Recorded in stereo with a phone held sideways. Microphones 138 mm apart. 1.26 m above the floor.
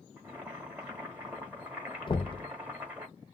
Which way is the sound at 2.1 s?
40° left (ahead or behind).